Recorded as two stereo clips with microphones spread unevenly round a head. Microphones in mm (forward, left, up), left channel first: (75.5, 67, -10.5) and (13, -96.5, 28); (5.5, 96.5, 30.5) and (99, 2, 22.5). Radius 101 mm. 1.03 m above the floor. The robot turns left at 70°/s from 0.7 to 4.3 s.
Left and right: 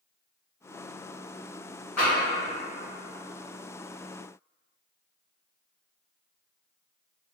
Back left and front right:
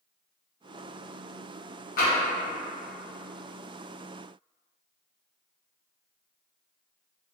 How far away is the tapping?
About 1.3 m.